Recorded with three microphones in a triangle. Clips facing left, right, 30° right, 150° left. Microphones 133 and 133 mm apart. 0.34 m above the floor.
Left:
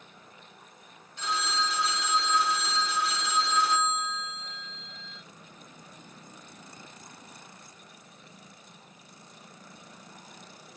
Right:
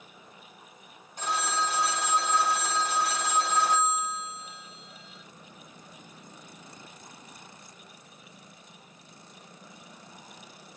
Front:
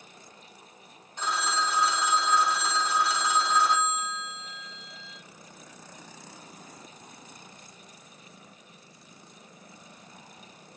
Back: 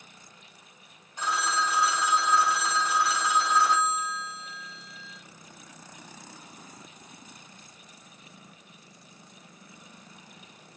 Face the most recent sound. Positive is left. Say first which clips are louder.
# right 2 dB, back 1 dB
turn(degrees=-125)